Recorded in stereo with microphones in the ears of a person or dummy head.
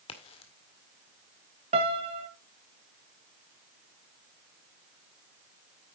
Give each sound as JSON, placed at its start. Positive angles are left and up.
{"t": 0.1, "sound": "a crack", "side_deg": 30, "distance_m": 1.9}
{"t": 1.7, "sound": "a piano", "side_deg": -35, "distance_m": 1.6}